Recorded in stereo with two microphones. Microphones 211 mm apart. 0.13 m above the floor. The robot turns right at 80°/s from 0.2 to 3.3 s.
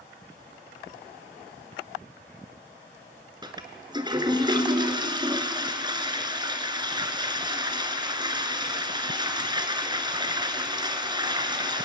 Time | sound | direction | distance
3.4 | a toilet flushing | 20° right (ahead or behind) | 1.6 m